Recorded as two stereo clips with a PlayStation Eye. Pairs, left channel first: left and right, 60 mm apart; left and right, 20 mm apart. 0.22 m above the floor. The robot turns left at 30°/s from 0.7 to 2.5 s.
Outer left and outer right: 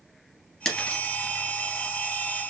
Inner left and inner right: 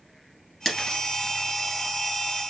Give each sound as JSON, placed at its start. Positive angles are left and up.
{"t": 0.7, "sound": "breaking glass", "side_deg": 5, "distance_m": 2.0}